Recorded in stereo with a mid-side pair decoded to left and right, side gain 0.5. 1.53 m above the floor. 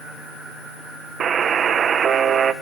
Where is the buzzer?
50° right, 1.5 m.